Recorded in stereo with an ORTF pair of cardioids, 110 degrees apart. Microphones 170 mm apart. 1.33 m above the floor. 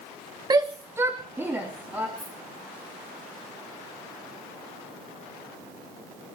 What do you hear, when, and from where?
0.5 s a shout: 25° right, 1.1 m; by 2.1 s 10° right, 3.5 m
2.2 s a dropped coin: straight ahead, 7 m